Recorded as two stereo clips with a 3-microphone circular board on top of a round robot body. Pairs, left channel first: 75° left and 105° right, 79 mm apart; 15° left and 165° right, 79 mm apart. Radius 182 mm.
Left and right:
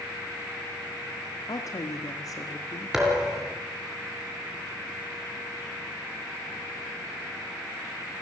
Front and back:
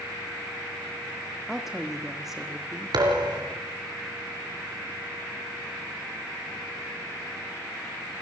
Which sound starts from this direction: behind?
A thud, at 2.9 s.